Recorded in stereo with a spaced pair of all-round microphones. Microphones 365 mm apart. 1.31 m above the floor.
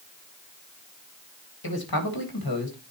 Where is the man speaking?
75° left (ahead or behind), 1.6 m.